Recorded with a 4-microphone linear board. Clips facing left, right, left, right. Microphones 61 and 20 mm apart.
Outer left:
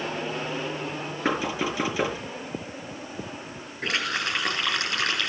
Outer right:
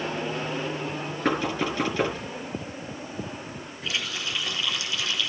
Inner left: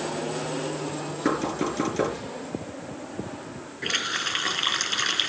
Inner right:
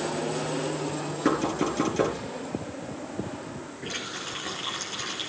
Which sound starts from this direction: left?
A running tap, at 3.8 s.